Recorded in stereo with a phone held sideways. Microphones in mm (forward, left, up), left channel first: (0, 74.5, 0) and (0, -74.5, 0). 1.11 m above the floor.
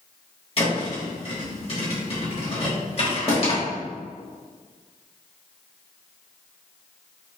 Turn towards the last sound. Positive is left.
turn(degrees=40)  # may be behind; listen again after turning